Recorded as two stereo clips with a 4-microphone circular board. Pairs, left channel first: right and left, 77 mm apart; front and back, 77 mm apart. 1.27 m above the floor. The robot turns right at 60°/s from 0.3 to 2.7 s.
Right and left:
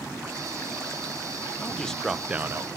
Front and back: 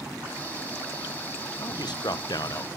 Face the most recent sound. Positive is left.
turn(degrees=40)